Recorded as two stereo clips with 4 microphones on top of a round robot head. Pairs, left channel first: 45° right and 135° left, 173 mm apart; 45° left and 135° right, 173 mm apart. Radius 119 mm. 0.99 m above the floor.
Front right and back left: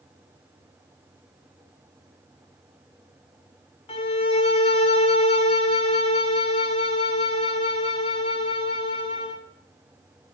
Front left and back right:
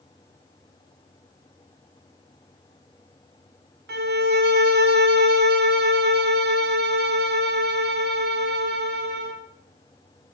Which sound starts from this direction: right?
A violin, at 3.9 s.